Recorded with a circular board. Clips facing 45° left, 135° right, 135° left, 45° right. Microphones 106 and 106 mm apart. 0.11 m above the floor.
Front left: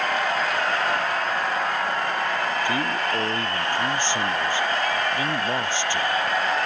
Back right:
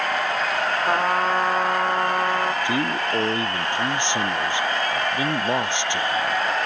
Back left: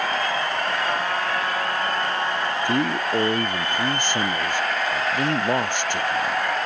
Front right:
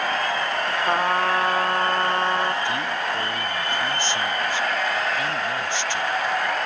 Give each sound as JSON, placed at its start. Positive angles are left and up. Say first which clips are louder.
{"t": 0.9, "sound": "a trumpet", "louder": "back right 4 dB, front right 3 dB", "azimuth_deg": -95}
{"t": 2.6, "sound": "a man speaking", "louder": "back right 1 dB, back left 3 dB", "azimuth_deg": 155}